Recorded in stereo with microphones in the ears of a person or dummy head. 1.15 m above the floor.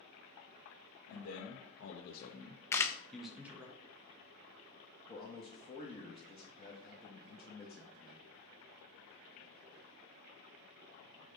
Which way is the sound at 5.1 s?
30° left (ahead or behind).